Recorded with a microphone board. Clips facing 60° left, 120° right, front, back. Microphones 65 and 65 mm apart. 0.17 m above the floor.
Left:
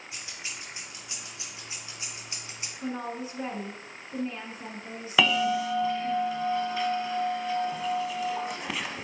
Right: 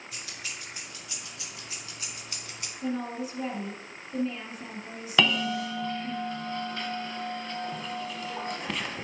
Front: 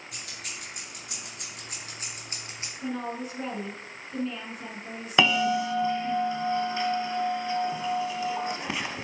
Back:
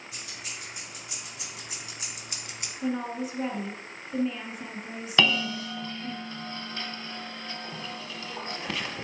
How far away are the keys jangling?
About 2.5 m.